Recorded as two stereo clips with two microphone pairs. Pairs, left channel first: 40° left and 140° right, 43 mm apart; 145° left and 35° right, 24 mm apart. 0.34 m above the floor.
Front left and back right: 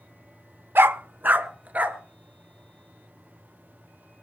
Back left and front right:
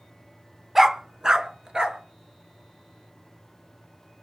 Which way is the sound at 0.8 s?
110° right.